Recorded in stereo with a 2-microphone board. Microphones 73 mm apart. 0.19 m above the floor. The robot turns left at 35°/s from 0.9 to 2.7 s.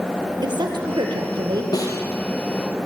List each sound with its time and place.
0.4 s a woman speaking: 75° right (ahead or behind), 5 m; by 1.6 s 60° right (ahead or behind), 5 m
1.7 s a snare drum: 55° left (ahead or behind), 4 m; by 2.0 s 50° left (ahead or behind), 4 m